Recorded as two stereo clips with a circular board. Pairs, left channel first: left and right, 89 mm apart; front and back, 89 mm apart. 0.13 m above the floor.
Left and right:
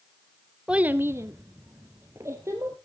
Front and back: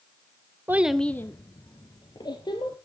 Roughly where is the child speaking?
Behind right.